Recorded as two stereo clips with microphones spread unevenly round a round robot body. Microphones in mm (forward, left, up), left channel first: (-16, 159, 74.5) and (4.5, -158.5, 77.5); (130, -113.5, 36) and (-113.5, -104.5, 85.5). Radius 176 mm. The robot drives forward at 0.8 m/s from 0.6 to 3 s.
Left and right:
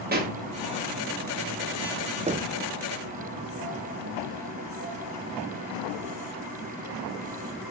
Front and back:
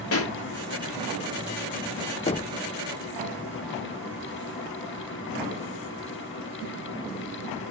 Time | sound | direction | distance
0.1 | a pop | 25° right | 1.7 m
2.3 | knocking | 25° right | 0.6 m